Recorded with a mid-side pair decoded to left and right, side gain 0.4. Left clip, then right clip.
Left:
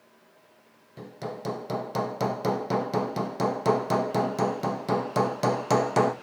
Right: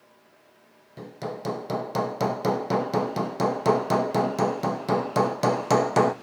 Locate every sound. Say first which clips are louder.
1.0 s hammering: right 2 dB; 15° right, 0.9 m